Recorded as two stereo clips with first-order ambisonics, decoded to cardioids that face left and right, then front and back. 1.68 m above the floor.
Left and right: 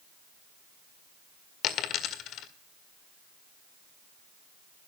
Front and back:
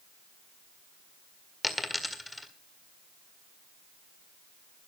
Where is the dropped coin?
85° left, 1.7 m.